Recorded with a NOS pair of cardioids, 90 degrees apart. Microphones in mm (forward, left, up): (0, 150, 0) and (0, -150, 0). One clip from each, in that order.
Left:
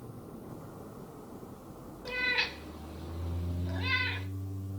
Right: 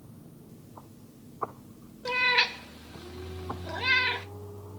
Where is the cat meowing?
40° right, 1.0 m.